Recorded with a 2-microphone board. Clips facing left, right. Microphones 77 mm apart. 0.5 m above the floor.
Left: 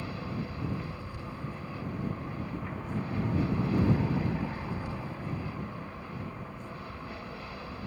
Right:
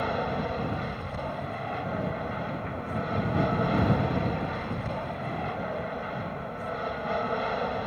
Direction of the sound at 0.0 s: 60° right (ahead or behind).